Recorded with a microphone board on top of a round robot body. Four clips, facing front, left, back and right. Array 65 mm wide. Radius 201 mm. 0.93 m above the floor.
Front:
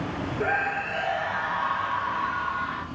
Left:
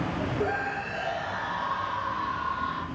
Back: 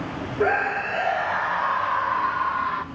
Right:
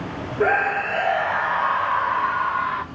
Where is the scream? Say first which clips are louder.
Right 13 dB, back 5 dB; 120° right, 1.4 m.